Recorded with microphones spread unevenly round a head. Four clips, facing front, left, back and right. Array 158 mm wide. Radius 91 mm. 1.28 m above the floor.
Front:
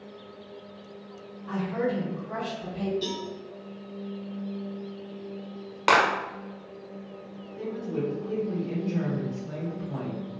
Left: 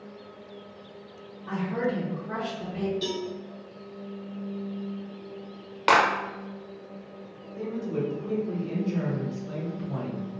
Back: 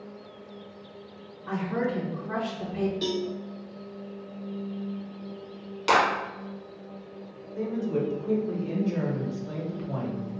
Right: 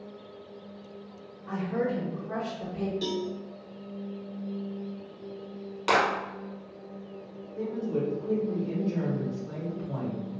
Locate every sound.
1.5 s a woman speaking: 145° left, 0.9 m
3.0 s a cowbell: straight behind, 0.5 m
5.9 s a clap: 50° left, 0.8 m
7.6 s a woman speaking: 160° left, 1.2 m